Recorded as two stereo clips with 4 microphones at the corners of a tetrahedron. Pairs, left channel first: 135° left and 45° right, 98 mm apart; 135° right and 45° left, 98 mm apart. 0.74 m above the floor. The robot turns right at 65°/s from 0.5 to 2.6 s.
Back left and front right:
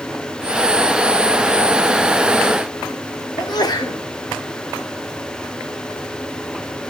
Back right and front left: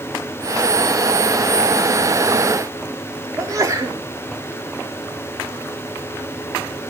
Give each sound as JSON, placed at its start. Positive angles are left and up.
{"t": 3.4, "sound": "a sneeze", "azimuth_deg": 95, "distance_m": 2.0}